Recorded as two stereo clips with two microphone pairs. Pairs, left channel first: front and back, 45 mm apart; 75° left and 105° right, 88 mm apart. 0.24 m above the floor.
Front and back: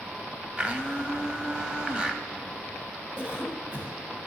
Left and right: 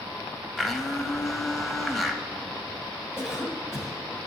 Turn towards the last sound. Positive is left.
turn(degrees=175)